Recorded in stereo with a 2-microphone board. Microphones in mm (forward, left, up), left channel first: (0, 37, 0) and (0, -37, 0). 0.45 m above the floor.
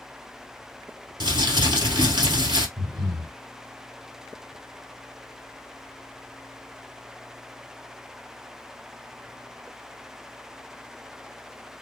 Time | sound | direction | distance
1.2 | crumpling | 80° right | 1.7 m
2.8 | breathing | 75° right (ahead or behind) | 3 m